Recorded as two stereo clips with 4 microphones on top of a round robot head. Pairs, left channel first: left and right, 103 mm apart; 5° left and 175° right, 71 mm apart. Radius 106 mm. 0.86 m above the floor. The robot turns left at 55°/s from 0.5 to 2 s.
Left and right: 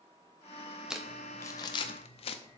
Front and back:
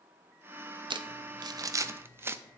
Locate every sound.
0.9 s crumpling: 175° right, 0.6 m; by 2.4 s 125° left, 0.6 m